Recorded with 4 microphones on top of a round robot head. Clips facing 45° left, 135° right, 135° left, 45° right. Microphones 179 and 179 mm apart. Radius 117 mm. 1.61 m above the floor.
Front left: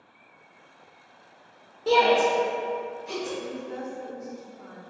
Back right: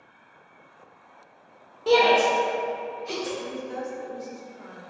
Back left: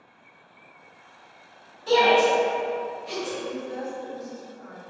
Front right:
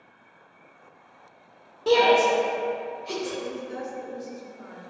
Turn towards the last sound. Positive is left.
turn(degrees=-80)